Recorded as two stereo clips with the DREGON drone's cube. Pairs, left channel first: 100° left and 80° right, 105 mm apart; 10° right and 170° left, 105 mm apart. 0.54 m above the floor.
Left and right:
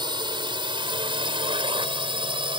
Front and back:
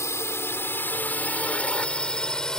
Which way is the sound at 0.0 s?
65° right.